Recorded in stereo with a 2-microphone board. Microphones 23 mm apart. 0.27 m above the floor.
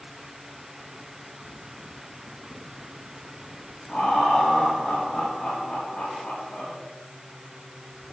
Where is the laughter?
50° left (ahead or behind), 6 m.